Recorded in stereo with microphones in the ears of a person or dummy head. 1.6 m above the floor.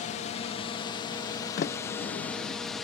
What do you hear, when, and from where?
0.0 s a drone: 30° left (ahead or behind); by 2.9 s 5° right (ahead or behind)
1.6 s a sliding door: 45° left (ahead or behind)